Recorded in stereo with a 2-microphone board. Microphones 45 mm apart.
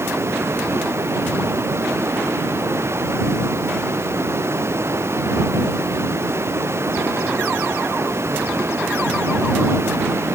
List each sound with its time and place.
0.0 s running water: 70° right (ahead or behind)